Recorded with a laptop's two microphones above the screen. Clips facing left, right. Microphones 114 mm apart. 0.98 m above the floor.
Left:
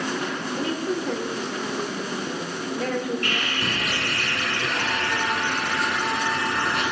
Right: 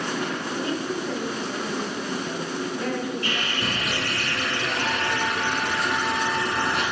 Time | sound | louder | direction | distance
0.6 | a woman speaking | left 3 dB | 80° left | 3 m
3.2 | sawing | even | 60° left (ahead or behind) | 3.5 m